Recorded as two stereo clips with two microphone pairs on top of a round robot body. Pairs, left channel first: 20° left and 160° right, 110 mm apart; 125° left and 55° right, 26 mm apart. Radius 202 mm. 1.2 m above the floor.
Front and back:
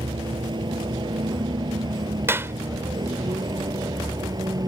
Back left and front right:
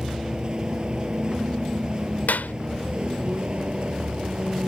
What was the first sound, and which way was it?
A vehicle, 110° right.